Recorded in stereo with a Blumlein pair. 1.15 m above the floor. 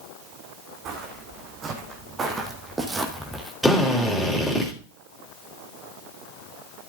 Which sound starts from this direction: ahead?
A drill, at 3.6 s.